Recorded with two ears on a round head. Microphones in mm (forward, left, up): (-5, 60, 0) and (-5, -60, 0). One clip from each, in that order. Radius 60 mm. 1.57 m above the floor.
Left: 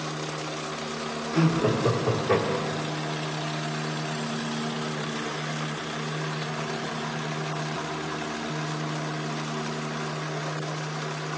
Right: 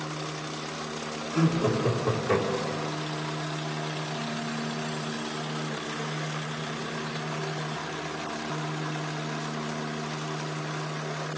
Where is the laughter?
5° left (ahead or behind), 3 m; by 2.9 s 15° right (ahead or behind), 4 m.